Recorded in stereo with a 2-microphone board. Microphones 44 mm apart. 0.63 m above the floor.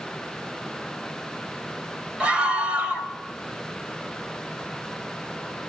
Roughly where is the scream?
Right.